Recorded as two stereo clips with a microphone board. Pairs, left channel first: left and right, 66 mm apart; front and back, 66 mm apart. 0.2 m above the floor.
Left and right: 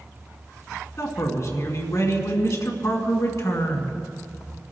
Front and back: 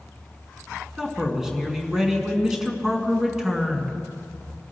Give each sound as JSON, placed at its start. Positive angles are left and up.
{"t": 1.0, "sound": "a man speaking", "azimuth_deg": 100, "distance_m": 2.0}